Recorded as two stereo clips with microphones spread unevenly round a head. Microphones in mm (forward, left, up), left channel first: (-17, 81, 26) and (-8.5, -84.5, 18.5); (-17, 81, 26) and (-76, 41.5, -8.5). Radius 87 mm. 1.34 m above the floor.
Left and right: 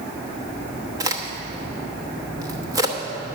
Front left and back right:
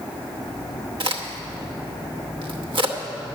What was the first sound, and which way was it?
A crack, 155° right.